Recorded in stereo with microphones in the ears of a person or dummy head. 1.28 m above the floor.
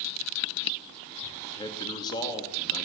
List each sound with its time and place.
1.6 s a man speaking: 25° left (ahead or behind), 2.5 m